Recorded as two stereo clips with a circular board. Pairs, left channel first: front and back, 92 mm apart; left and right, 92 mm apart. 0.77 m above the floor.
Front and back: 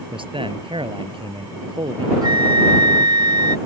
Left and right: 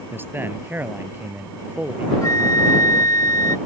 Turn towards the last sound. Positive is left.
turn(degrees=140)